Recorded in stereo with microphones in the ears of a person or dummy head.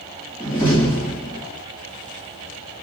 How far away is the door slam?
About 2.5 m.